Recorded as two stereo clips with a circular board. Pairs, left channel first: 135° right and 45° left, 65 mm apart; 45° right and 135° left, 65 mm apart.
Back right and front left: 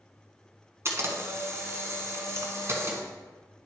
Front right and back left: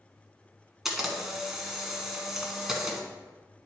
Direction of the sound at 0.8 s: 55° left.